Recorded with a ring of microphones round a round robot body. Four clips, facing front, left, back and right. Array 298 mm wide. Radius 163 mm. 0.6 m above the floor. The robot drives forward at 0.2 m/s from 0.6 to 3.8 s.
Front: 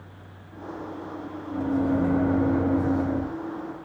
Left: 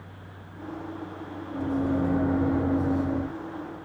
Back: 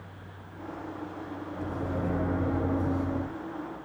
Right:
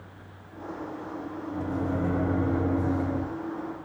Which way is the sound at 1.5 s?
5° left.